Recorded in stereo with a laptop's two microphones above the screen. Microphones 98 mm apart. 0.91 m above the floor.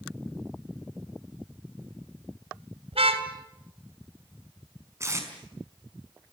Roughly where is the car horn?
Right.